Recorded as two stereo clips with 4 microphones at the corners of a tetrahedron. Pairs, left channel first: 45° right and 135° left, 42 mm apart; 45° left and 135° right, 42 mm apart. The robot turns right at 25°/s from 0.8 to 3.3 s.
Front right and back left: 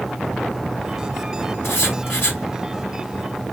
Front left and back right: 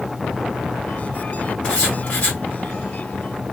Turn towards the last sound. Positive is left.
turn(degrees=20)